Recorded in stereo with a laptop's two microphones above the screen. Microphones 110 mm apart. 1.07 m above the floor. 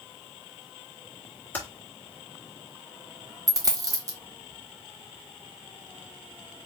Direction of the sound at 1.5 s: 15° left (ahead or behind).